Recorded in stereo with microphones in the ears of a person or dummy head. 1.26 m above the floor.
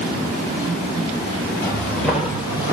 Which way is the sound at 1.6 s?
10° left (ahead or behind).